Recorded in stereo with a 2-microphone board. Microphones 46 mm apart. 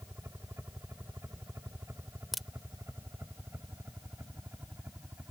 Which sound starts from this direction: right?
A helicopter, at 0.0 s.